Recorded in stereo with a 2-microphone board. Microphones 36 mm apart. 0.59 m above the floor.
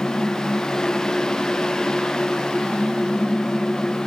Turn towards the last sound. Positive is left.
No sound to turn to.